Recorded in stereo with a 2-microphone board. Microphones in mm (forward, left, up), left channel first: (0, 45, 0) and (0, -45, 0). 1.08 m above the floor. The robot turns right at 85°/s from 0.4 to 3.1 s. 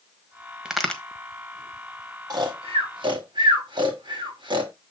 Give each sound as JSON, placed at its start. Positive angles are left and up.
{"t": 0.7, "sound": "a crack", "side_deg": -10, "distance_m": 1.4}
{"t": 2.3, "sound": "snoring", "side_deg": -55, "distance_m": 2.5}